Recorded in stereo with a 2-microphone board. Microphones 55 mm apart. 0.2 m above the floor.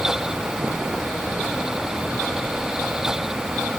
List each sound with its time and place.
Only background noise.